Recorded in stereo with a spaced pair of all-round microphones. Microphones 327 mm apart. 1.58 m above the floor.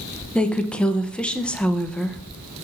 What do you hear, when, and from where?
0.3 s a woman speaking: 5° left (ahead or behind), 0.9 m